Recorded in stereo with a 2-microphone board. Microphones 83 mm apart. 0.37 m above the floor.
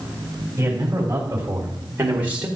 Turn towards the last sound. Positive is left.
turn(degrees=-20)  # may be behind; listen again after turning